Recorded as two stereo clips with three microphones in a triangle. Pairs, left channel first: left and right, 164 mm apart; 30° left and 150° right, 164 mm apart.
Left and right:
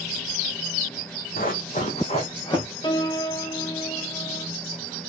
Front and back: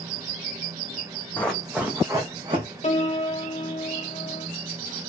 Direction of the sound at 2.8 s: 45° left.